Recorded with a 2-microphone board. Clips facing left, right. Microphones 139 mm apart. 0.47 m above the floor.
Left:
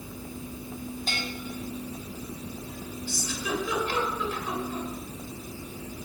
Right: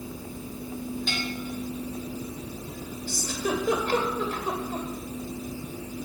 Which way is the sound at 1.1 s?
40° left (ahead or behind).